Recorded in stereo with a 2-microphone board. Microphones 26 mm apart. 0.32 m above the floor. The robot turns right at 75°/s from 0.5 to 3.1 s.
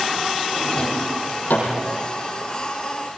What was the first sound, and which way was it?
A drawer, 15° left (ahead or behind).